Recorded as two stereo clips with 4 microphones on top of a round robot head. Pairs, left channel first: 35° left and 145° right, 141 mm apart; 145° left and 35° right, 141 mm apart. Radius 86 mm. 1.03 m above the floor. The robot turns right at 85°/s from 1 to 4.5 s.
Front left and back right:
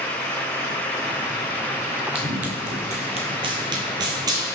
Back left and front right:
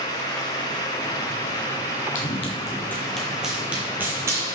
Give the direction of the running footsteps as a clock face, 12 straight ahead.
6 o'clock.